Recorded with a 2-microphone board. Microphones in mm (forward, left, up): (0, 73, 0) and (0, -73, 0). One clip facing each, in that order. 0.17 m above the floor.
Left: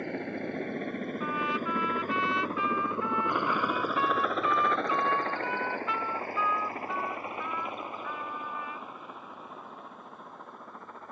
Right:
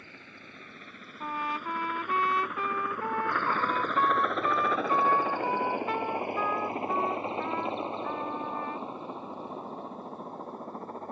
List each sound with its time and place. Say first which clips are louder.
0.0 s a helicopter: left 18 dB; 60° left (ahead or behind); by 11.1 s 35° right (ahead or behind)
1.2 s a trumpet: right 1 dB; 45° right (ahead or behind)